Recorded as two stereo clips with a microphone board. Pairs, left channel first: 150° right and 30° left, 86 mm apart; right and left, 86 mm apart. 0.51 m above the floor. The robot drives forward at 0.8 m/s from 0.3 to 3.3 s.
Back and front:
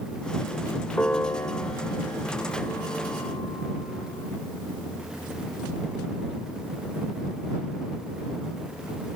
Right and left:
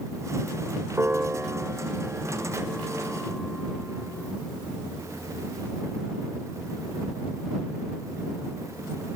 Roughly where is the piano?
Behind left.